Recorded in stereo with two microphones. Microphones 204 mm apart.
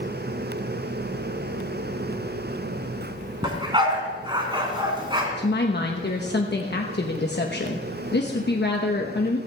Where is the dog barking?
20° right (ahead or behind), 2.5 m.